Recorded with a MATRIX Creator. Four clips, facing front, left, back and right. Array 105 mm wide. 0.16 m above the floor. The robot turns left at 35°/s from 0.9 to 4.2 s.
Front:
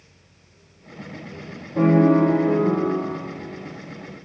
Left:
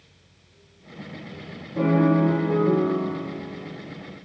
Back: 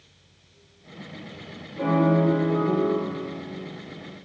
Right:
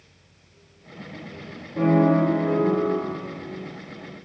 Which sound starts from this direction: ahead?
A piano, at 1.8 s.